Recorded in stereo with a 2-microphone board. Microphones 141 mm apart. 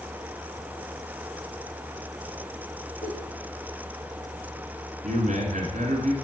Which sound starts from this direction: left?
A giggle, at 3.0 s.